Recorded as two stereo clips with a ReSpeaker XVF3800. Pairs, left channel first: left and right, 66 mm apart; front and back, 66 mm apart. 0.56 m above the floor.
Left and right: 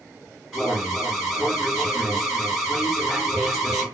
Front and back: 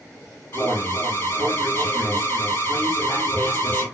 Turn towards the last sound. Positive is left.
turn(degrees=-5)